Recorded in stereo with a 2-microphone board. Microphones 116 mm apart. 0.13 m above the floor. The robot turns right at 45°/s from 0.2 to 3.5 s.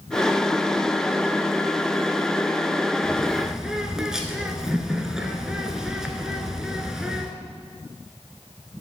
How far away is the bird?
About 0.9 m.